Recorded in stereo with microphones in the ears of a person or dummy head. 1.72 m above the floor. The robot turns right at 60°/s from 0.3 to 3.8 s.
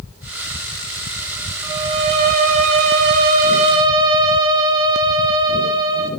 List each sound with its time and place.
1.6 s a violin: 160° right, 1.8 m; by 6.1 s 30° right, 1.8 m